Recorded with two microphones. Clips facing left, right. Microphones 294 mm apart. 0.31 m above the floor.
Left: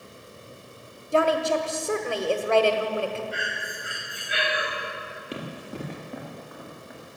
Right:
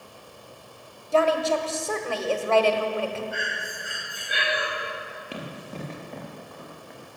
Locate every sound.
1.1 s a woman speaking: 20° left (ahead or behind), 1.3 m
3.3 s breathing: 50° right (ahead or behind), 6.5 m
5.3 s running footsteps: 20° left (ahead or behind), 3.5 m; by 7.2 s 5° left (ahead or behind), 4.5 m